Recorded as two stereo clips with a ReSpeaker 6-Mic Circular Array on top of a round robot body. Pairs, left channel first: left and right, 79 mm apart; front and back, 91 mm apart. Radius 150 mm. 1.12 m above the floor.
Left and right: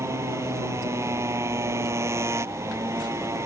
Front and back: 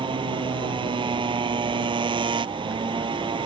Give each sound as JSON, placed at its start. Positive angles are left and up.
{"t": 0.0, "sound": "a motorcycle", "azimuth_deg": -145}